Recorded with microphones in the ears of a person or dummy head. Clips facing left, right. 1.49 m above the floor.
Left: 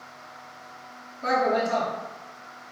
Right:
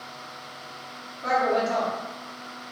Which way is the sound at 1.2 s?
45° left (ahead or behind).